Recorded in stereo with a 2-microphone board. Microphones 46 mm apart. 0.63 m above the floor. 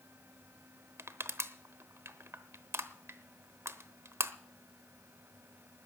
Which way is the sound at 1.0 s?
85° right.